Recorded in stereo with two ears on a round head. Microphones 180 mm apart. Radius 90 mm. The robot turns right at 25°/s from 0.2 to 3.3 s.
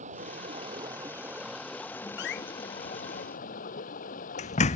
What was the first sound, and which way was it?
Running water, 35° right.